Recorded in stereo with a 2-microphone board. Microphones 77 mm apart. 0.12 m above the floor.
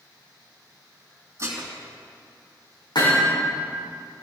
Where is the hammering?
75° left (ahead or behind), 5.5 m.